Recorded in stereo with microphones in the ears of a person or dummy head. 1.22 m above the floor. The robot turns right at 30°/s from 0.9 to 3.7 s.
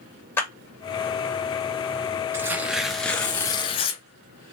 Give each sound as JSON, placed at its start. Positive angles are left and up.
{"t": 0.4, "sound": "a clap", "side_deg": 15, "distance_m": 0.9}
{"t": 2.3, "sound": "tearing paper", "azimuth_deg": -15, "distance_m": 0.5}